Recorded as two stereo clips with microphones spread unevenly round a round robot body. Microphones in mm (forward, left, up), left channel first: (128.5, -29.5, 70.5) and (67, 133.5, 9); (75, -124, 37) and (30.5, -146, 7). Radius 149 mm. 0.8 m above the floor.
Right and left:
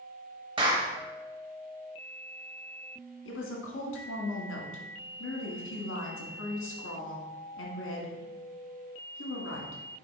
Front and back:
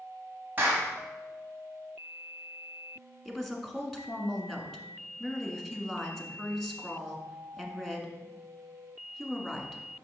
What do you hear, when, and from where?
0.6 s a clap: 160° left, 0.9 m
3.2 s a woman speaking: 75° right, 1.5 m